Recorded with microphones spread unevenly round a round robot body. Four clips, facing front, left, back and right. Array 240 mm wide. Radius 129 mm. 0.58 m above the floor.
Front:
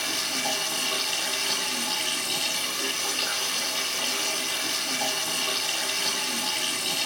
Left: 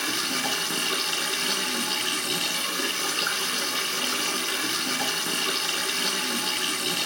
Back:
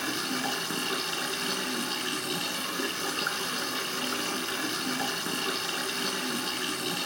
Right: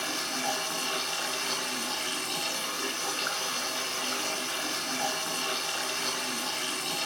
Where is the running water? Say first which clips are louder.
Left 3 dB, even; 140° left, 2 m.